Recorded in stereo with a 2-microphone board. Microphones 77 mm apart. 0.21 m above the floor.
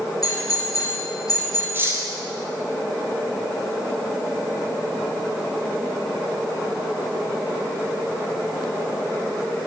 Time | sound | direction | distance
0.2 | a doorbell | 50° left (ahead or behind) | 5 m
1.7 | cutlery clinking | 25° right (ahead or behind) | 3 m